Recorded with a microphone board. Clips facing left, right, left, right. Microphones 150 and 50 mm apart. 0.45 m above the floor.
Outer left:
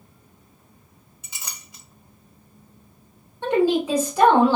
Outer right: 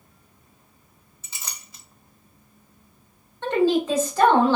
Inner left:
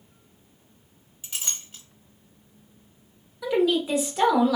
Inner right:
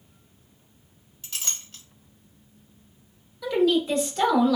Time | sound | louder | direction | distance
1.2 | a clink | even, even | 15° left (ahead or behind) | 1.4 m
3.4 | a woman speaking | outer left 1 dB, inner right 1 dB | 10° left (ahead or behind) | 0.9 m